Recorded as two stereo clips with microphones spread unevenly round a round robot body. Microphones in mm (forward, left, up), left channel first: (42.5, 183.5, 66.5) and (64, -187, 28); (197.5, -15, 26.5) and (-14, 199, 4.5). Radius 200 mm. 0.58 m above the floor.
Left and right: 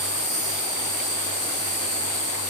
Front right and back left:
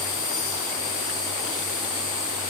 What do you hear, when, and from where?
0.0 s an insect: 120° right, 4.5 m